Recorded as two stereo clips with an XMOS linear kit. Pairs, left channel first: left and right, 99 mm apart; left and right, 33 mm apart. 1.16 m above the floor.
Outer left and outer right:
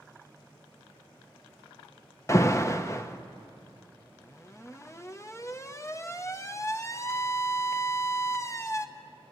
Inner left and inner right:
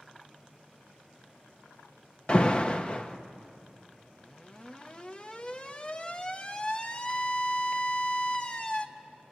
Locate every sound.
2.3 s an alarm: 30° left (ahead or behind), 0.9 m